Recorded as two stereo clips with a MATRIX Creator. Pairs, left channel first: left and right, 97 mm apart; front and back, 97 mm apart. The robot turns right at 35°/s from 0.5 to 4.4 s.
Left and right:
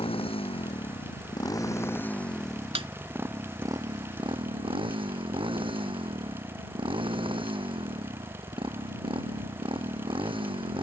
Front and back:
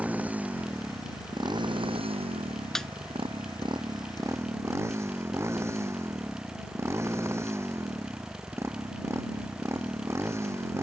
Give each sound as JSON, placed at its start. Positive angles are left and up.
{"t": 0.0, "sound": "a motorcycle", "azimuth_deg": 105}
{"t": 2.8, "sound": "a snare drum", "azimuth_deg": -85}